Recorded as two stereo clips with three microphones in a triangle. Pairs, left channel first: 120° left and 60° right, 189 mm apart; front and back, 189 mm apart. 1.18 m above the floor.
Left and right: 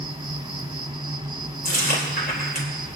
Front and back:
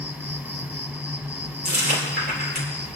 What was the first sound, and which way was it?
An insect, 105° right.